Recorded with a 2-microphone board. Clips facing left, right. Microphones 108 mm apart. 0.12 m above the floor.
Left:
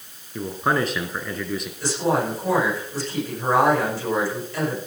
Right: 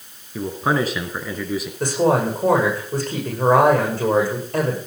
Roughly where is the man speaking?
Centre.